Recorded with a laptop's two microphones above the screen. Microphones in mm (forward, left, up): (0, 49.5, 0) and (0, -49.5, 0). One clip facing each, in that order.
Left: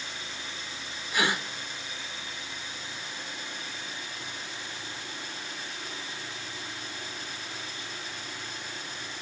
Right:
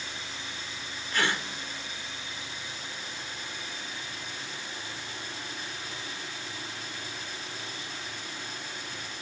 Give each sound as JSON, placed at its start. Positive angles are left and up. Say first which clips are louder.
{"t": 1.1, "sound": "a gasp", "louder": "left 1 dB", "side_deg": 10, "distance_m": 1.7}